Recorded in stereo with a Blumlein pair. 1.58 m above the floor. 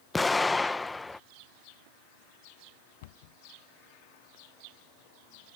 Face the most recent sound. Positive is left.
turn(degrees=50)